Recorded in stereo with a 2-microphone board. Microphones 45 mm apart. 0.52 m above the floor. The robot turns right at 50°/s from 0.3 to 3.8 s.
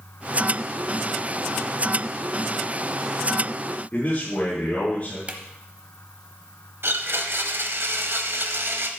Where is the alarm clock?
I don't hear an alarm clock.